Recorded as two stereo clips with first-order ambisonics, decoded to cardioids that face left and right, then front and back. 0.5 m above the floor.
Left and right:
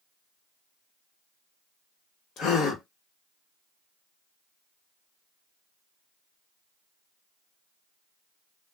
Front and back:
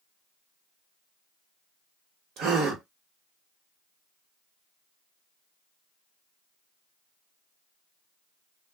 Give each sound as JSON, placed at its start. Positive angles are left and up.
{"t": 2.4, "sound": "a gasp", "azimuth_deg": 145, "distance_m": 1.4}